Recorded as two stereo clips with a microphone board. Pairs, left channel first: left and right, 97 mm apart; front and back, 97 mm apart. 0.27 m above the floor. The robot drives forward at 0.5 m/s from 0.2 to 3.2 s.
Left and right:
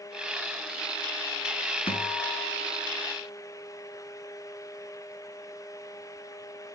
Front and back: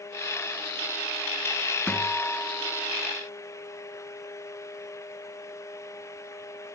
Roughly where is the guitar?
Left.